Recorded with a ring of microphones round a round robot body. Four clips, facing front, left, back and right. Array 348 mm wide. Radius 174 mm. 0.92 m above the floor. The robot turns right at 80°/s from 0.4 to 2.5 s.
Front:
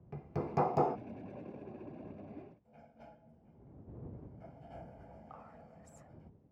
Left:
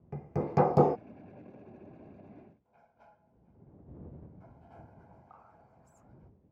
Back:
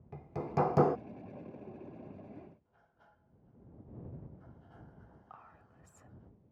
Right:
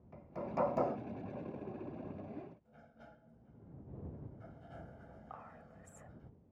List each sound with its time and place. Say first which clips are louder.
0.1 s hammering: left 9 dB, back 1 dB; 80° left; by 1.0 s 125° left
2.6 s a sliding door: right 2 dB, front 10 dB; 35° right
5.3 s whispering: right 5 dB, front 3 dB; 100° right